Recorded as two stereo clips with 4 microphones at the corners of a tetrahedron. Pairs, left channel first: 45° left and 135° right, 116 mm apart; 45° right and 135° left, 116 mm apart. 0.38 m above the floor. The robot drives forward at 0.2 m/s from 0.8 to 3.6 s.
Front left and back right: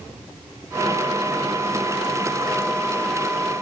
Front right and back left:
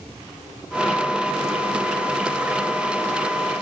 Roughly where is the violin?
No violin in this recording.